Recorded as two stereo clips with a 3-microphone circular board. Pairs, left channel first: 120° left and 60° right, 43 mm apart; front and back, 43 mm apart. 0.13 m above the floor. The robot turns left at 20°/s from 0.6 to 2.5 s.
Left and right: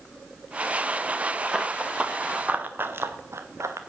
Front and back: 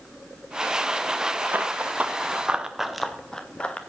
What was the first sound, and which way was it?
Running footsteps, 130° right.